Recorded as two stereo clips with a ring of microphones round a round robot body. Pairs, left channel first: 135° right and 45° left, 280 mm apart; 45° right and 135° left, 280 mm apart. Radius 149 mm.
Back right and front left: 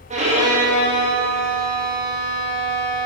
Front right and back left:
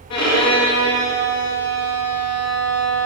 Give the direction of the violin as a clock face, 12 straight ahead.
1 o'clock.